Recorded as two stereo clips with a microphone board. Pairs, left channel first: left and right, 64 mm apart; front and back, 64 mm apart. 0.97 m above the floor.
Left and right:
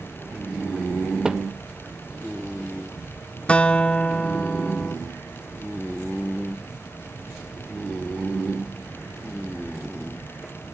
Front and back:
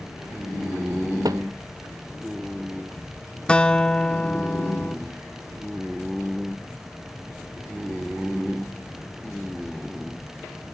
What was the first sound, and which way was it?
A thud, 170° right.